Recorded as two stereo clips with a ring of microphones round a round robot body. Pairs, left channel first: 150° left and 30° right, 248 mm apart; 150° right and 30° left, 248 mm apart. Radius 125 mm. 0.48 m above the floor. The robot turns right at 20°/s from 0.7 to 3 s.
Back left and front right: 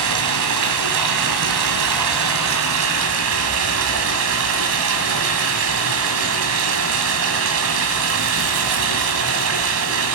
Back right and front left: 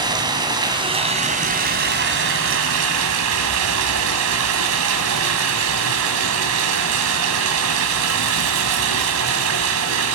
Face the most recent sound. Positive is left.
turn(degrees=0)